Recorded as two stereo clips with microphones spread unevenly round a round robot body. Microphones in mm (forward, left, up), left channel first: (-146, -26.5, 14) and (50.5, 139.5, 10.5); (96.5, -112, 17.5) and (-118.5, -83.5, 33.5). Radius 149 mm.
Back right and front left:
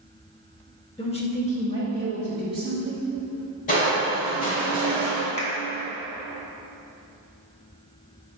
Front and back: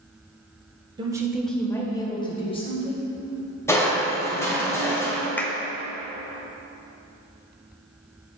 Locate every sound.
1.0 s a woman speaking: 155° right, 0.8 m; by 3.1 s 65° right, 2 m
3.7 s crushing: 80° right, 1.6 m
5.4 s a clap: 85° right, 0.7 m